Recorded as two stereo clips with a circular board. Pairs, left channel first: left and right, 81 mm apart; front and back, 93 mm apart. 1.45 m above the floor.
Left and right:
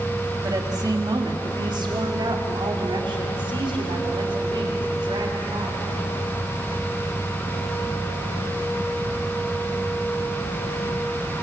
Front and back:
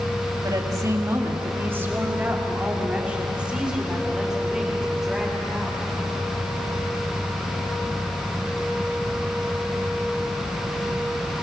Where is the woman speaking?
130° right, 2.5 m; by 5.9 s 90° right, 6 m.